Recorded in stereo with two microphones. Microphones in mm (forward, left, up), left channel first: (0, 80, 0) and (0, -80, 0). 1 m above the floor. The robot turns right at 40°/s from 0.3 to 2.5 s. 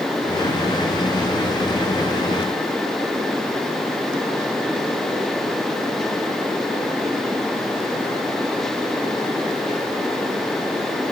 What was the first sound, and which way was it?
Only background noise.